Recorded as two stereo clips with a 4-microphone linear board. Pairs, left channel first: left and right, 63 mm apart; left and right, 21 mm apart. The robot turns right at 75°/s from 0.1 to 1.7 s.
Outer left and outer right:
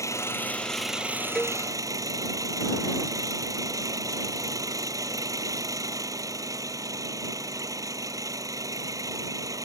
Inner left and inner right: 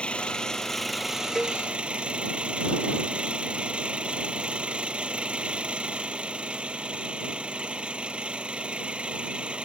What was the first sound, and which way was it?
An engine running, 125° left.